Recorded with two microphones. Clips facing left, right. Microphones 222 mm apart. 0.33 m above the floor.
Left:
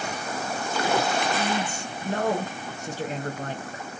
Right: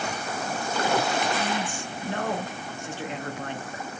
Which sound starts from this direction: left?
A man speaking, at 1.4 s.